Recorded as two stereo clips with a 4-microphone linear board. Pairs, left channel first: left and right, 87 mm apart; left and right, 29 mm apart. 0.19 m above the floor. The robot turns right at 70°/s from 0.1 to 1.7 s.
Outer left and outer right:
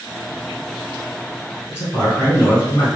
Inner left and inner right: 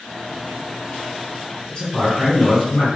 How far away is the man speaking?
About 1.5 m.